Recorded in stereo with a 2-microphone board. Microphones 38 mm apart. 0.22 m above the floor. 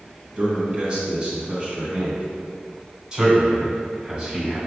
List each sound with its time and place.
0.4 s a man speaking: 25° right (ahead or behind), 1.5 m
3.1 s a man speaking: 15° right (ahead or behind), 1.3 m